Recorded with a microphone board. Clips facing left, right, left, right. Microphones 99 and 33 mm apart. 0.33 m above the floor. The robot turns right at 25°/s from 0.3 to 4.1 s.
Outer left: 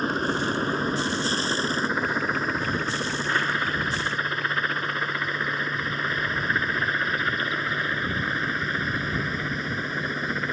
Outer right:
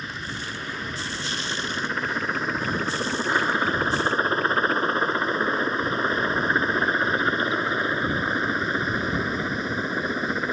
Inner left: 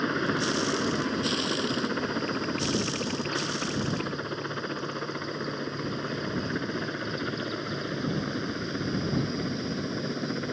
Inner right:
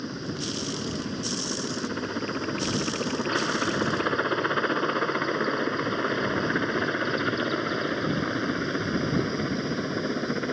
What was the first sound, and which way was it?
A helicopter, 45° left (ahead or behind).